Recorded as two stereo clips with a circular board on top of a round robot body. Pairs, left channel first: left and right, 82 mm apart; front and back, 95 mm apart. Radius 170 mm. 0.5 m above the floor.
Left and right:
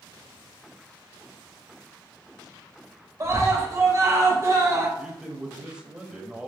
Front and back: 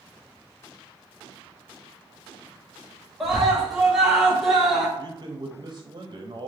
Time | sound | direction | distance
3.2 | a scream | 95° right | 1.4 m
5.0 | a man speaking | 170° right | 0.8 m